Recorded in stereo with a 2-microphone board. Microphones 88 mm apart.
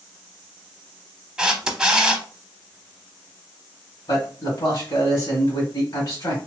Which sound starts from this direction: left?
A man speaking, at 4.1 s.